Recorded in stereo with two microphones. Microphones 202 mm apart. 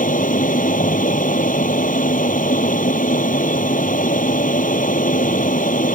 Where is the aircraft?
40° left (ahead or behind).